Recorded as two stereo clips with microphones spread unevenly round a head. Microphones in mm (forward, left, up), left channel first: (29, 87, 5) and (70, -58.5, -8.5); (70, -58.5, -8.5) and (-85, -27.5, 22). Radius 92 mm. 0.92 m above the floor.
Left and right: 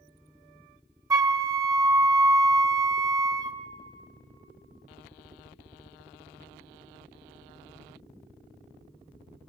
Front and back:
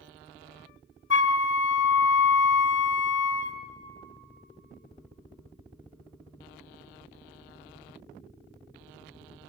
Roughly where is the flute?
Ahead.